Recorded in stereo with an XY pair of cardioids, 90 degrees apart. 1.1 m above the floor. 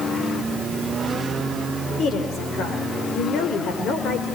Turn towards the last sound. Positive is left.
turn(degrees=70)